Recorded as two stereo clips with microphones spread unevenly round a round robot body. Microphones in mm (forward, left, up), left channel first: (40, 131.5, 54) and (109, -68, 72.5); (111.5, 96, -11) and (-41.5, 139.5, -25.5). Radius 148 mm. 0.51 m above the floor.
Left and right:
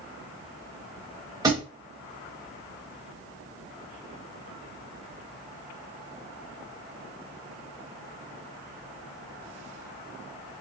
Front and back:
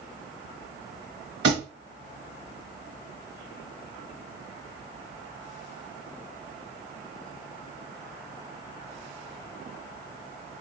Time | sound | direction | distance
1.4 | a thud | 150° right | 0.6 m